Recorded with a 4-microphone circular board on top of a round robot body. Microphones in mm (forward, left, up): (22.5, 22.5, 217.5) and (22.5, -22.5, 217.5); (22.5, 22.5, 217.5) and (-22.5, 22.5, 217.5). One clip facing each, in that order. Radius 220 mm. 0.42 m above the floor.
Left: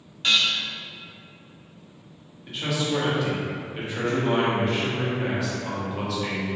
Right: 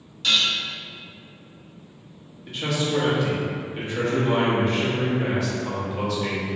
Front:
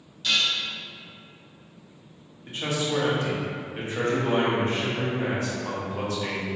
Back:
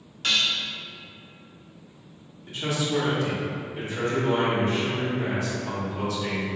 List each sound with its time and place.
0.2 s dishes clattering: 145° left, 1.1 m
2.5 s a man speaking: 5° left, 1.5 m